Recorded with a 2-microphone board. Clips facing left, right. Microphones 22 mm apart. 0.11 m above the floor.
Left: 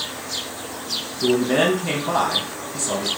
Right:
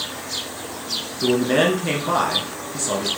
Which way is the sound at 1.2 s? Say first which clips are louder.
Even; 15° right (ahead or behind).